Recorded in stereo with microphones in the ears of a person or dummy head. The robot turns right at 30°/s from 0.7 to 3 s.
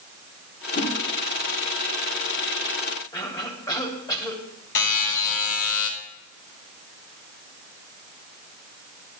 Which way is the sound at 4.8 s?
45° left (ahead or behind).